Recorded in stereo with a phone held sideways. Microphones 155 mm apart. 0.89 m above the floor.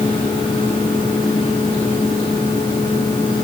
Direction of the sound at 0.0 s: 30° left (ahead or behind).